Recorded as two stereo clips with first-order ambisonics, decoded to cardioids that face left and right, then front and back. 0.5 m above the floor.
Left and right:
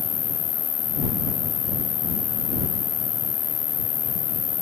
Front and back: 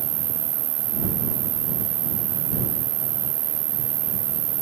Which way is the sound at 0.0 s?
150° left.